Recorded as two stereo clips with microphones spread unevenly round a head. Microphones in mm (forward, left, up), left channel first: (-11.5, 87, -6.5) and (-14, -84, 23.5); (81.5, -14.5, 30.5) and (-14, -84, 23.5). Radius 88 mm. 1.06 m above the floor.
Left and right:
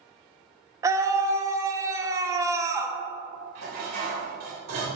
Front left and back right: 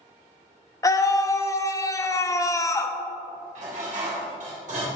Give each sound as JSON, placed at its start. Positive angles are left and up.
{"t": 0.8, "sound": "a scream", "azimuth_deg": -15, "distance_m": 0.9}
{"t": 3.5, "sound": "dishes clattering", "azimuth_deg": -125, "distance_m": 3.5}